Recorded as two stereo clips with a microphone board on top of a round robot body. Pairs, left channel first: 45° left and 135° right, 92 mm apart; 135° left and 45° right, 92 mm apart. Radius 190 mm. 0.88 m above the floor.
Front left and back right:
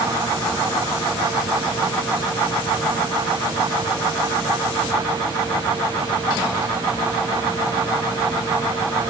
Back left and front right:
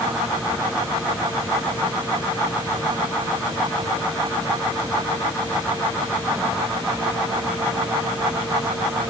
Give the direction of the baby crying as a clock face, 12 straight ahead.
No baby crying in this recording.